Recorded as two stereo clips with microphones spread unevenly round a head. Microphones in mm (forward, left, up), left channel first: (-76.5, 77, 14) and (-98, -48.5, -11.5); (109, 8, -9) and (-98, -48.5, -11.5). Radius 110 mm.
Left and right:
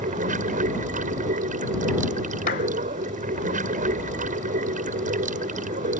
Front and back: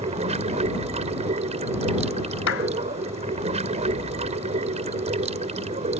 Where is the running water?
105° right.